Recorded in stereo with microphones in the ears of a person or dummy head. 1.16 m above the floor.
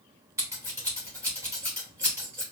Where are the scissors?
20° right (ahead or behind), 0.9 m.